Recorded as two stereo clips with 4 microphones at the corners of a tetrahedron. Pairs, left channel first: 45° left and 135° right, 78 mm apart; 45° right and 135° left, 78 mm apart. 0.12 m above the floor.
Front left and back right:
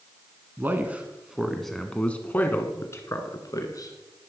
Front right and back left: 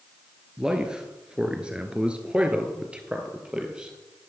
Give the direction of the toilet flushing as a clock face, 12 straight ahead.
No toilet flushing in this recording.